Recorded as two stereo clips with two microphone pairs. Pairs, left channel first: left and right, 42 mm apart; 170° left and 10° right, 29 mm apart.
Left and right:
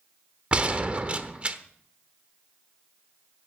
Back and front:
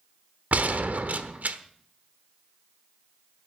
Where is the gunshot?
30° right, 1.1 m.